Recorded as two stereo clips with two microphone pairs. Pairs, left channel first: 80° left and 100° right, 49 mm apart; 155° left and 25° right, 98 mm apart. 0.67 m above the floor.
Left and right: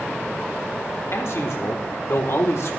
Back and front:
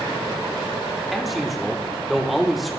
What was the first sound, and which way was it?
A man speaking, 65° left.